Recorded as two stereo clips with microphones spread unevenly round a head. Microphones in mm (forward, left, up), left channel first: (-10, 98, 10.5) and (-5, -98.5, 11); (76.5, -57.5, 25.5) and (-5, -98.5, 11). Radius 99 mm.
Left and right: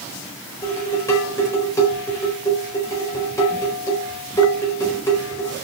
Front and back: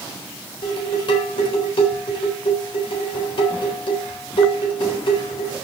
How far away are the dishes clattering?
About 4 m.